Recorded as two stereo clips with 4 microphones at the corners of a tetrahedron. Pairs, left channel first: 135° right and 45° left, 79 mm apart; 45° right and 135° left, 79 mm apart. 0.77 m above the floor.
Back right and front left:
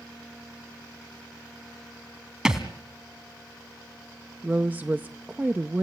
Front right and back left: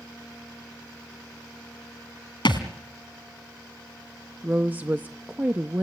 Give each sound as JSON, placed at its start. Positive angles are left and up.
{"t": 2.5, "sound": "a thud", "azimuth_deg": -35, "distance_m": 2.0}
{"t": 4.4, "sound": "a woman speaking", "azimuth_deg": 90, "distance_m": 0.6}